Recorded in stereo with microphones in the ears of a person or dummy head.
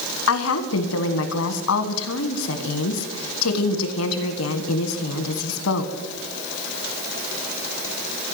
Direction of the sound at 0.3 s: 70° left (ahead or behind).